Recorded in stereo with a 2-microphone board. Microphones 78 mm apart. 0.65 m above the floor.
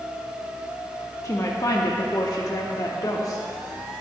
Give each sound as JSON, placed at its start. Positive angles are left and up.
{"t": 1.2, "sound": "a woman speaking", "side_deg": 45, "distance_m": 0.9}